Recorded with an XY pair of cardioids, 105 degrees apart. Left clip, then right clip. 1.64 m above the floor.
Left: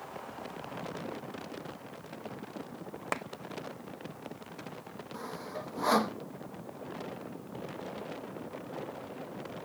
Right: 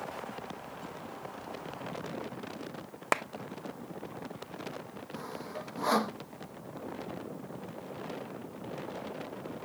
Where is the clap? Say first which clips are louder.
Right 6 dB; 35° right.